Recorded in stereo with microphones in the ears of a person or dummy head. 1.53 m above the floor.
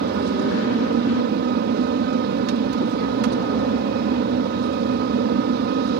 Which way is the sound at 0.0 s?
60° right (ahead or behind).